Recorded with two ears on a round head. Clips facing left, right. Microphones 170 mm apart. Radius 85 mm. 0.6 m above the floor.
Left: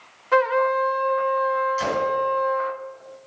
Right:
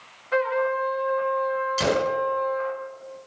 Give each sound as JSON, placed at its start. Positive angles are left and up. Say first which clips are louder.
{"t": 0.3, "sound": "a trumpet", "louder": "left 3 dB", "side_deg": 60, "distance_m": 1.1}
{"t": 1.8, "sound": "a gunshot", "louder": "right 1 dB", "side_deg": -45, "distance_m": 1.0}